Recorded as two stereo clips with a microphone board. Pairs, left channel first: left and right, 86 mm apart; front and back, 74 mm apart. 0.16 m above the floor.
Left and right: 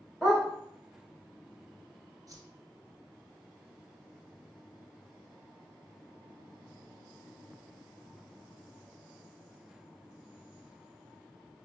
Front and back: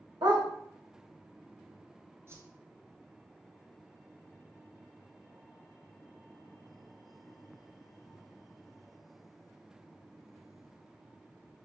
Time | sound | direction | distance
0.2 | a dog barking | straight behind | 3 m
2.3 | a whoosh | 130° right | 0.8 m